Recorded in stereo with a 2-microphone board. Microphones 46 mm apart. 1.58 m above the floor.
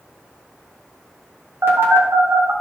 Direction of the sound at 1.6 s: 65° right (ahead or behind).